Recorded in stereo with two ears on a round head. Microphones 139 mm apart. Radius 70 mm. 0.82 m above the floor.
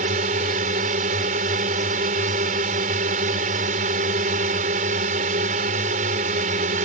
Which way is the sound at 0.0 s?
50° right (ahead or behind).